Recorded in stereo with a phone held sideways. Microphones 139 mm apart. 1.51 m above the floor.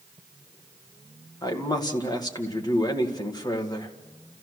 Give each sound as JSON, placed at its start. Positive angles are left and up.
{"t": 1.4, "sound": "a man speaking", "side_deg": 30, "distance_m": 2.0}